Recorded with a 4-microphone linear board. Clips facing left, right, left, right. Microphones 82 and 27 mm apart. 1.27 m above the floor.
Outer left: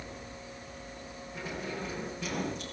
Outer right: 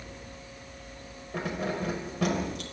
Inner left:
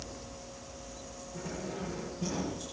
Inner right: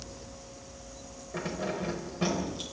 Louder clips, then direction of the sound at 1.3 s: Outer right 7 dB, inner right 6 dB; 70° right (ahead or behind).